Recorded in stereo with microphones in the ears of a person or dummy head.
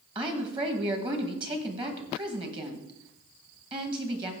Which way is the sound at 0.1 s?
30° right (ahead or behind).